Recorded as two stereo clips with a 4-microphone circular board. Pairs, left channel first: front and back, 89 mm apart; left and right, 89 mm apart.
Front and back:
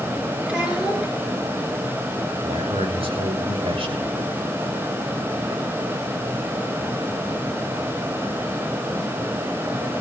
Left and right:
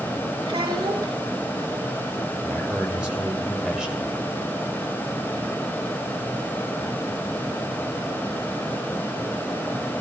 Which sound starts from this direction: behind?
A man speaking, at 2.4 s.